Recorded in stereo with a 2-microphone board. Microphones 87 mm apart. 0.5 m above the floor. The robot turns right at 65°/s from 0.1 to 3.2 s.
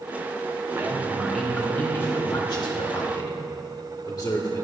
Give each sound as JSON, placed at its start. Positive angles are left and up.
{"t": 0.8, "sound": "a man speaking", "azimuth_deg": -45, "distance_m": 1.3}